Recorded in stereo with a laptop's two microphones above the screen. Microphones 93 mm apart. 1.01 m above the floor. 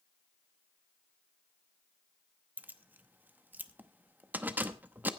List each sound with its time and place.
2.6 s keys jangling: 20° right (ahead or behind), 0.9 m